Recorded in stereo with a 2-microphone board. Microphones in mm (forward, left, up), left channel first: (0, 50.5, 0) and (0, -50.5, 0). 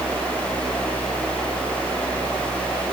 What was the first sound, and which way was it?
Only background noise.